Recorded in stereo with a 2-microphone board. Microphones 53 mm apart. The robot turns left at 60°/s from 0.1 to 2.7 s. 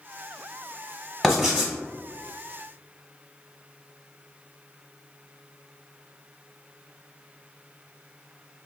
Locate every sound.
1.2 s writing: centre (ahead or behind), 1.2 m; by 1.7 s 20° right (ahead or behind), 1.2 m